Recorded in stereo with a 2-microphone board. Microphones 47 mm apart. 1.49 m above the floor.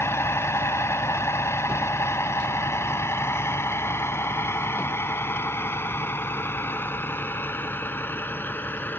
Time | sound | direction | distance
0.0 | a vehicle | 65° left (ahead or behind) | ?